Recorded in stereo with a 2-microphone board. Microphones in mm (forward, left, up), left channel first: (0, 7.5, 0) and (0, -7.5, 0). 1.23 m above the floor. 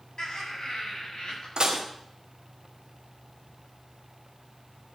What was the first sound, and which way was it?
Laughter, 65° left (ahead or behind).